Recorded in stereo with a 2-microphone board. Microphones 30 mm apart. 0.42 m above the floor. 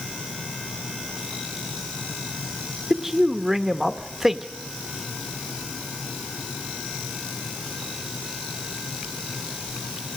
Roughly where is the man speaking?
Centre.